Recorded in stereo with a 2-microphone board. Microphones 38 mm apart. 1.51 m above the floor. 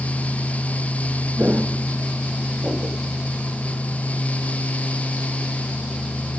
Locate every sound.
1.4 s footsteps: 60° right (ahead or behind), 4 m; by 3.0 s 45° right (ahead or behind), 4 m